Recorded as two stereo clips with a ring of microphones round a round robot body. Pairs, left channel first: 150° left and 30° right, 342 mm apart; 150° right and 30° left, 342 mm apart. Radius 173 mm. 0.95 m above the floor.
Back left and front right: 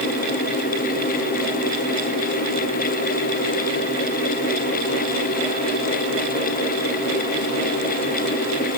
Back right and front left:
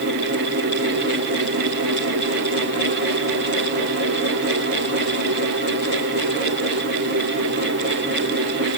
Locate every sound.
Only background noise.